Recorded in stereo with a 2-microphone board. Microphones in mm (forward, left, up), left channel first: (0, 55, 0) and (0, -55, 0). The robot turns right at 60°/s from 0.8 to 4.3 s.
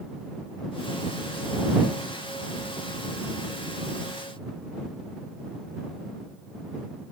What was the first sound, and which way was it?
Only background noise.